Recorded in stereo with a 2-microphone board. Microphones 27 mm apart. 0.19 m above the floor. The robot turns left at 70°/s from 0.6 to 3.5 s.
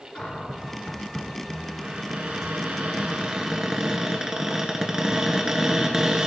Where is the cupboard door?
50° left, 1.5 m; by 6.3 s 155° right, 1.5 m.